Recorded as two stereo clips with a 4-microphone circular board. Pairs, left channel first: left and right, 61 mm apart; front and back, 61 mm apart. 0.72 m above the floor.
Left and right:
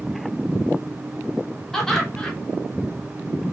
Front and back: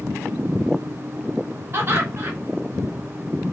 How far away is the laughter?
About 0.9 m.